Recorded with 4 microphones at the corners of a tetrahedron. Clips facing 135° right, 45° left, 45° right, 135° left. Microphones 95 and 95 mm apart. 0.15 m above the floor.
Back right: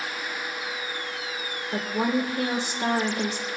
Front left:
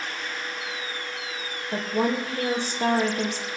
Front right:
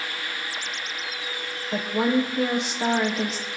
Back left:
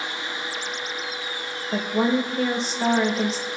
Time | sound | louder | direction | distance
1.7 | a woman speaking | front left 1 dB, back left 1 dB | 30° left | 5 m